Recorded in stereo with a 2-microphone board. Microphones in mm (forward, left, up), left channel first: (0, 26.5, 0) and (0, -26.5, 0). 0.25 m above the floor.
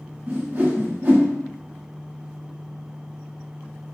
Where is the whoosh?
45° right (ahead or behind), 0.9 m.